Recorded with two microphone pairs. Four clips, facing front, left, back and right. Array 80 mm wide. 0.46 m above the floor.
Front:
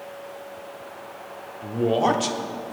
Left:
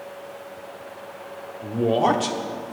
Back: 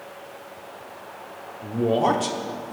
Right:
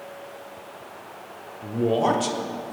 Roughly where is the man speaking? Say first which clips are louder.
Left 2 dB, even; left.